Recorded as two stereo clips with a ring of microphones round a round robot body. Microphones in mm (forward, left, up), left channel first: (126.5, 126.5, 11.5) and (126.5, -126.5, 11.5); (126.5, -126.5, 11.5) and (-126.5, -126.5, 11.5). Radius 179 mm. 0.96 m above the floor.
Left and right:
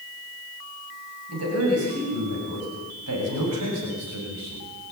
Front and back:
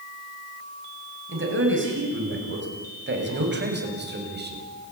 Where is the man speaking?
140° right, 8 m; by 4.7 s 130° right, 6.5 m.